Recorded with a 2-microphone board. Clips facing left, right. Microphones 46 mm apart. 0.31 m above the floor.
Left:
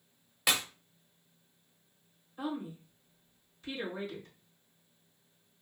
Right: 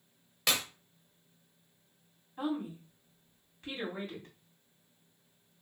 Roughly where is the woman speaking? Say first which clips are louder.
Right 2 dB; right.